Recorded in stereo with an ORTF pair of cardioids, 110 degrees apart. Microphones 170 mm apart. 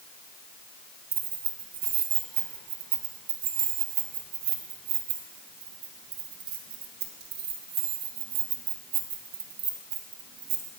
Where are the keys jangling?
70° right, 1.8 m.